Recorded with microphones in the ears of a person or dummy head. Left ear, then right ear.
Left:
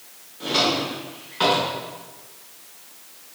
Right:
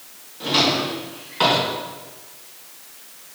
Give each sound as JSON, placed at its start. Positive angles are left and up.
{"t": 0.4, "sound": "a drawer", "side_deg": 0, "distance_m": 1.4}